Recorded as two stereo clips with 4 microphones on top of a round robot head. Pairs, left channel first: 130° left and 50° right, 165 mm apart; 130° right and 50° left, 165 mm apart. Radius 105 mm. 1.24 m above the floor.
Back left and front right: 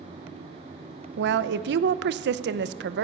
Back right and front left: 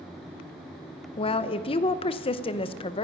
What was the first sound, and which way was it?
A woman speaking, 70° right.